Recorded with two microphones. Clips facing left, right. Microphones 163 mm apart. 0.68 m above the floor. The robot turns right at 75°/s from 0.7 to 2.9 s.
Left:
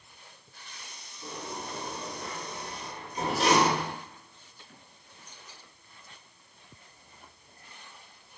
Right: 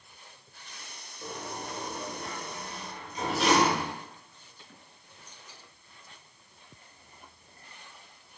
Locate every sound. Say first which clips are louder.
1.2 s a sliding door: even; 80° right, 0.9 m; by 3.9 s 40° left (ahead or behind), 0.9 m